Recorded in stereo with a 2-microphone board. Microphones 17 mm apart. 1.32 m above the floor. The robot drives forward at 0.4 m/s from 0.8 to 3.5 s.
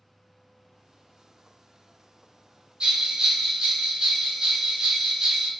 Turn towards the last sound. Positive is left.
turn(degrees=-50)  # may be behind; listen again after turning